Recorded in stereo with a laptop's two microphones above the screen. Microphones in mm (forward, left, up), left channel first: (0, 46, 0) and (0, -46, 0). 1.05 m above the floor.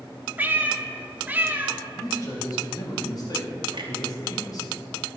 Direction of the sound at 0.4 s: 20° right (ahead or behind).